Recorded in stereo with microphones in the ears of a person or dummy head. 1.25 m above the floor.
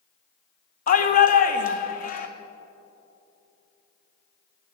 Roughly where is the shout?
Left.